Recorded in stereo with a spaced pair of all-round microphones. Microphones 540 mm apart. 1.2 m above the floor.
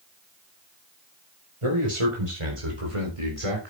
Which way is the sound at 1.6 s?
65° right (ahead or behind).